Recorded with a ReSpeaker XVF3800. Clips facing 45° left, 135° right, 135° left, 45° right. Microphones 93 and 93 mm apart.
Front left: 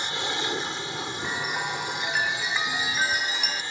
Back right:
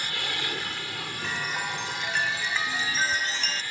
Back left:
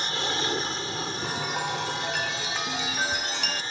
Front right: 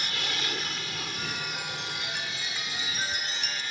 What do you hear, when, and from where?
0.0 s an aircraft: 95° left
1.2 s a chime: 120° left